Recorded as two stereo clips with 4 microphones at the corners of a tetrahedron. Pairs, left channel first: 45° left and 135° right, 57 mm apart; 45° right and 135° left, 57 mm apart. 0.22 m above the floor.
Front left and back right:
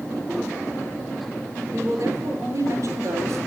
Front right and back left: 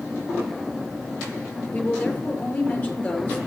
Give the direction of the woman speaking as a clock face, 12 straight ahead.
4 o'clock.